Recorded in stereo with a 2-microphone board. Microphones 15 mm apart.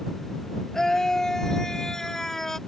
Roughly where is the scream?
Left.